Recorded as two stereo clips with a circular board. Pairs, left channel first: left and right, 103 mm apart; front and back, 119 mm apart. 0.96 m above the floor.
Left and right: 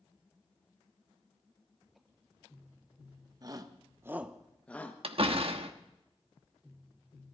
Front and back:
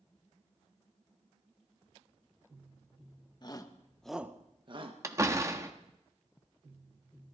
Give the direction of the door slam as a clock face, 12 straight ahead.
4 o'clock.